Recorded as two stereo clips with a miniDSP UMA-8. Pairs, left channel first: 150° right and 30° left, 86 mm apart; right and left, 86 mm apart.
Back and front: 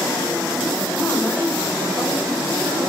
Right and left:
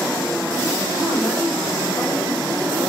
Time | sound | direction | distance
0.9 | a woman speaking | 95° right | 4 m